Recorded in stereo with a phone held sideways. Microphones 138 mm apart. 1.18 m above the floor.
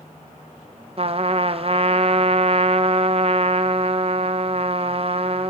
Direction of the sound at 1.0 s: 45° right (ahead or behind).